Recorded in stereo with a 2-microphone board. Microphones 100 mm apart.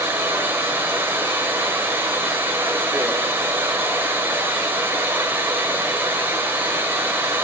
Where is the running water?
25° right (ahead or behind), 1.5 m.